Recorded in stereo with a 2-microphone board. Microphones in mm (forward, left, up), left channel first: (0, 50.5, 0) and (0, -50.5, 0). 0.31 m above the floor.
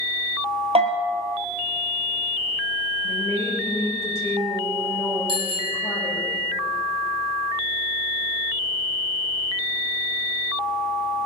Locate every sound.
0.8 s a bell: 85° right, 1.4 m
3.0 s a woman speaking: 25° left (ahead or behind), 7 m
5.3 s a bicycle bell: 55° right (ahead or behind), 3 m